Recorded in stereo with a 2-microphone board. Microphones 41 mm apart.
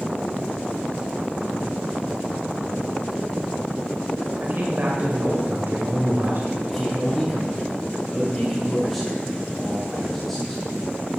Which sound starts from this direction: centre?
A man speaking, at 6.7 s.